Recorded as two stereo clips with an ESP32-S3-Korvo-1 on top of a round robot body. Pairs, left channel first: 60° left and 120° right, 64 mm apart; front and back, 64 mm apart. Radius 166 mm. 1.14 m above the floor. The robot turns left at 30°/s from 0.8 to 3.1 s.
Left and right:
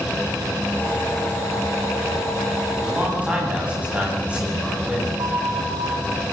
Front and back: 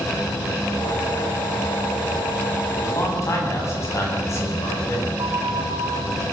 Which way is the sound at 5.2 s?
150° right.